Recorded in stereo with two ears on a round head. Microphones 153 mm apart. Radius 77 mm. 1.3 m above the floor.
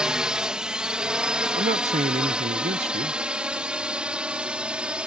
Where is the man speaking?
40° right (ahead or behind).